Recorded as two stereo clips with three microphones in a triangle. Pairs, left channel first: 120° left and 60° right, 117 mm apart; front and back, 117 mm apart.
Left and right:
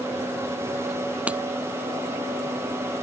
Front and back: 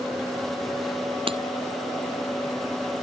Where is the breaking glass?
140° right.